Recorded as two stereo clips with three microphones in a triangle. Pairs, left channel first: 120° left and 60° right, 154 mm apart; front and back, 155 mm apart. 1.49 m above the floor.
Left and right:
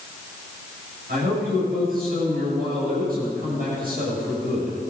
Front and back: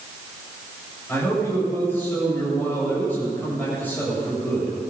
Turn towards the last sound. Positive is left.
turn(degrees=-80)